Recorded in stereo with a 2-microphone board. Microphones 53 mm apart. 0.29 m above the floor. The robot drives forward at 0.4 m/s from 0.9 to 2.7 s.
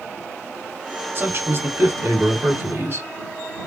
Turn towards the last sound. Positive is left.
turn(degrees=-50)  # may be behind; listen again after turning